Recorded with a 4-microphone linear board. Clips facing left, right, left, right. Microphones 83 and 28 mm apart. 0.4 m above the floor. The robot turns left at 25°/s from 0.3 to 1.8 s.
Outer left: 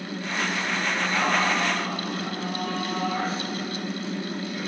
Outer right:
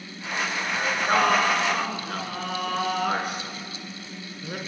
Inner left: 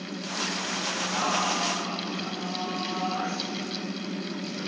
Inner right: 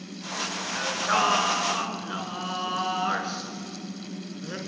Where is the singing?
65° right (ahead or behind), 4 m; by 4.6 s 80° right, 4 m.